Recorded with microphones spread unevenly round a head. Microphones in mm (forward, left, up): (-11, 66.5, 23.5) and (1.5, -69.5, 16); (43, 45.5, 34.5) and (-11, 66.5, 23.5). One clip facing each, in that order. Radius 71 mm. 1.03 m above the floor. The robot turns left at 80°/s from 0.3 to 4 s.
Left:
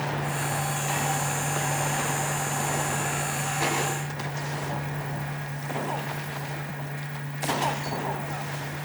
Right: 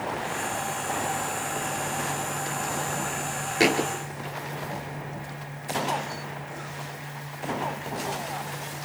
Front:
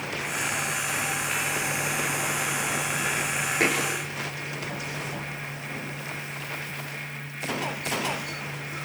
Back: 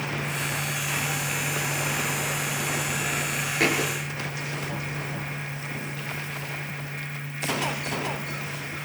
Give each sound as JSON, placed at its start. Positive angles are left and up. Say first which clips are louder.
{"t": 3.6, "sound": "a thud", "louder": "right 6 dB, back 1 dB", "azimuth_deg": -100, "distance_m": 4.5}